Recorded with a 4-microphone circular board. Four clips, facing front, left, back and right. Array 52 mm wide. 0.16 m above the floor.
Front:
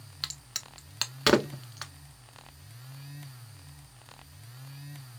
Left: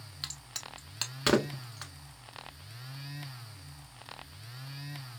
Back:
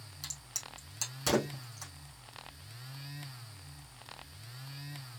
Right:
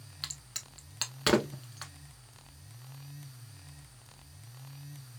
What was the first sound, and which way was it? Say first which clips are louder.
A crack: left 2 dB, front 6 dB; straight ahead.